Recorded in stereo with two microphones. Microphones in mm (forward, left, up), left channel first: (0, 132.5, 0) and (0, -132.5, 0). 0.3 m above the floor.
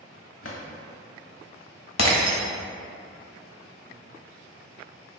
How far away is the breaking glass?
About 0.7 m.